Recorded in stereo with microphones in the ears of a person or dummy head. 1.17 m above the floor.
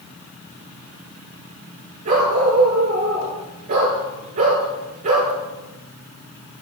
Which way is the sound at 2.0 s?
50° right (ahead or behind).